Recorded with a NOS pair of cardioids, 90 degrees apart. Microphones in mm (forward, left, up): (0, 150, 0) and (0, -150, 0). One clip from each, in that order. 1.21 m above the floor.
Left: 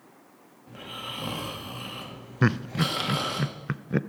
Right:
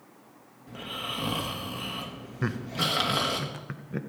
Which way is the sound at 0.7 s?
15° right.